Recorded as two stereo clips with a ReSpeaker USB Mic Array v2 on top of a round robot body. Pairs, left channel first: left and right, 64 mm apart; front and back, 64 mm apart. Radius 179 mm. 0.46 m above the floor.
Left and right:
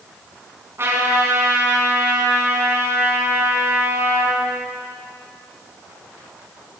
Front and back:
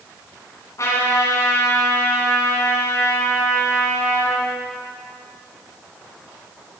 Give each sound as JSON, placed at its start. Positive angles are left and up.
{"t": 0.8, "sound": "a trumpet", "azimuth_deg": -40, "distance_m": 6.5}